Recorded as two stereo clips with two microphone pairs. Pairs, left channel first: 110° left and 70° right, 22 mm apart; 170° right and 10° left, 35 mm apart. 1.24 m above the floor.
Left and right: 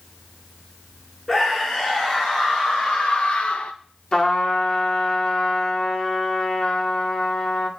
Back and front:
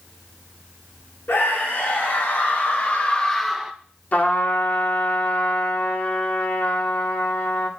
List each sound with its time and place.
1.3 s a scream: 175° left, 3.5 m; by 3.7 s 80° left, 1.2 m
4.1 s a trumpet: 150° left, 1.9 m